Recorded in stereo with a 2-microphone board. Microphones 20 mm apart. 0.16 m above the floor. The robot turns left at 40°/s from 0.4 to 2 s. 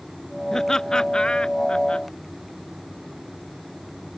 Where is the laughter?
25° left (ahead or behind); by 2.1 s 55° left (ahead or behind).